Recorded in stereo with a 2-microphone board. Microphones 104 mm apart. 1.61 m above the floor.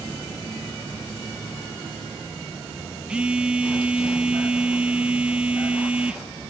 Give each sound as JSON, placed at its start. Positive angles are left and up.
{"t": 3.1, "sound": "a phone buzzing", "side_deg": -10, "distance_m": 0.7}